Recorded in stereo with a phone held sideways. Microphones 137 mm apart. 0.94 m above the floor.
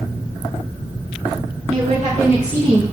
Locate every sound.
1.7 s a woman speaking: 65° right (ahead or behind), 1.7 m; by 2.8 s 35° right (ahead or behind), 1.0 m